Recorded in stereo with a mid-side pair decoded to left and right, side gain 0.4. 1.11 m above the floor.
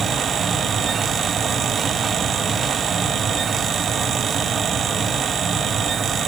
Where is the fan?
60° right, 1.8 m.